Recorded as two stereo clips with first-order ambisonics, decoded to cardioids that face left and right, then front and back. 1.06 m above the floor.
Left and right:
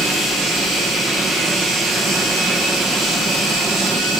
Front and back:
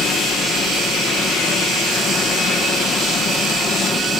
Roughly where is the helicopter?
Ahead right.